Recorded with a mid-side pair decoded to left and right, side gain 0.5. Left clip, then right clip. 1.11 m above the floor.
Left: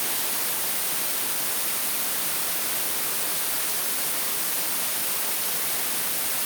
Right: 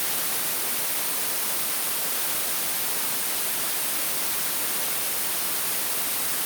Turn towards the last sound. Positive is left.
No sound to turn to.